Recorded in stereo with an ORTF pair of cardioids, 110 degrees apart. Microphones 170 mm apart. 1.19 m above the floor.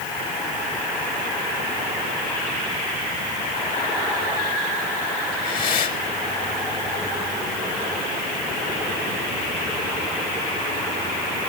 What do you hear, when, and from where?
5.3 s breathing: 50° left, 3 m